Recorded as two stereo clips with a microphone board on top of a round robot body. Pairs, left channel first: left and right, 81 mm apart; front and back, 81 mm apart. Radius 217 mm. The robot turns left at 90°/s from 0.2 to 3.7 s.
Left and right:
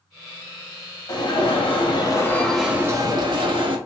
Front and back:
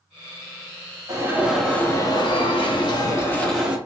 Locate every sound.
1.1 s an alarm: 135° left, 0.9 m; by 3.8 s 100° right, 0.9 m